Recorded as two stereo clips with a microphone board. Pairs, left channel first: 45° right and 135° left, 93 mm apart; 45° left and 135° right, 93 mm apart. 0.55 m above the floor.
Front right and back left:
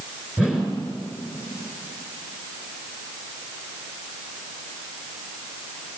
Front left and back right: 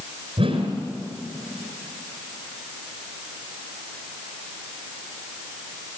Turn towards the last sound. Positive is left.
turn(degrees=-145)